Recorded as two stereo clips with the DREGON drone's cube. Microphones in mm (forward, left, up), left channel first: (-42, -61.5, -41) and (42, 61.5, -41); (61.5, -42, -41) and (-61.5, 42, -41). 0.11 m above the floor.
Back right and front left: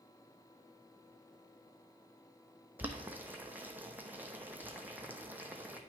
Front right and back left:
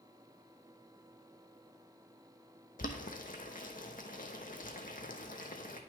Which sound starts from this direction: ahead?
Boiling, at 2.8 s.